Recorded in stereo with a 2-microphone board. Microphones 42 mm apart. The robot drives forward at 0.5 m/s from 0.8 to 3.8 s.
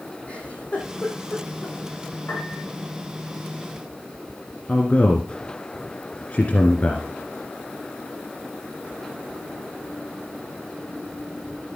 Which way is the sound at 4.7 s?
30° left (ahead or behind).